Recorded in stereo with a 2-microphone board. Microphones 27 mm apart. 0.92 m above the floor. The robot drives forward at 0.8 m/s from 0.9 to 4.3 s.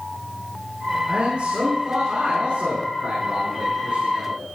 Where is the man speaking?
55° right (ahead or behind), 7 m; by 4.5 s 40° right (ahead or behind), 8.5 m.